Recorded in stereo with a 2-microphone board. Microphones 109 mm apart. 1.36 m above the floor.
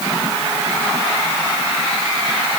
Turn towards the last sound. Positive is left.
No sound to turn to.